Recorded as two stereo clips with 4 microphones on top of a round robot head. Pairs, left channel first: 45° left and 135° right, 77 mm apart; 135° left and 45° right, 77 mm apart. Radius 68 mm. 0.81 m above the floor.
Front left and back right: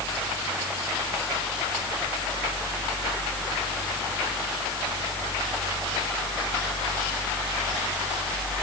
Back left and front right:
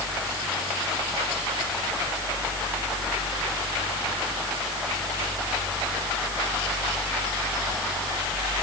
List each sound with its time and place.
Only background noise.